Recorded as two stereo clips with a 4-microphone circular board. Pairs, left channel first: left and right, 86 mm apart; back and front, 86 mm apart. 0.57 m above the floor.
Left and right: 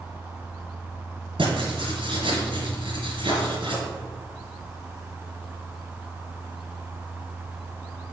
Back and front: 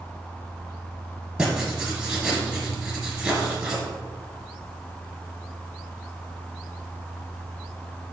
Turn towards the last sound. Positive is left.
turn(degrees=-80)